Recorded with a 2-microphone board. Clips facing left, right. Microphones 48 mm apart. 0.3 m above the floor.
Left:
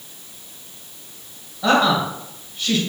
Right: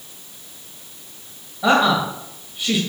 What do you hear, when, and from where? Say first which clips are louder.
1.6 s a woman speaking: right 1 dB; 10° right (ahead or behind), 1.2 m